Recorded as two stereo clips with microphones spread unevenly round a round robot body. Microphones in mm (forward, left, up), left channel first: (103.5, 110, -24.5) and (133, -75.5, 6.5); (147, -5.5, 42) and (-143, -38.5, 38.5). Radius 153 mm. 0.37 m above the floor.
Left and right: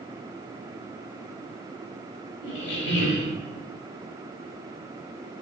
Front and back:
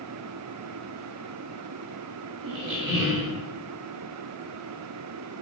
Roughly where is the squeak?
Behind left.